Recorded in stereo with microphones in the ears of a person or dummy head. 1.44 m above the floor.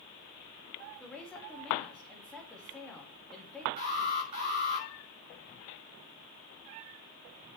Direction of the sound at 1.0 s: Centre (ahead or behind).